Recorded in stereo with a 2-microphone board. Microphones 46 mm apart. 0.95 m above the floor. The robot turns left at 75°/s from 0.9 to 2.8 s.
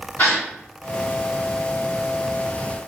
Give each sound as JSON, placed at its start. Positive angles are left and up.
{"t": 0.2, "sound": "a gasp", "side_deg": 25, "distance_m": 5.0}